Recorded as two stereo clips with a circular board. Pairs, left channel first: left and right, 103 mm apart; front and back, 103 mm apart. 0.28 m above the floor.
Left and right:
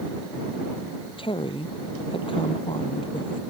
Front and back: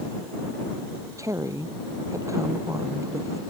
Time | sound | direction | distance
1.2 | a woman speaking | 120° left | ?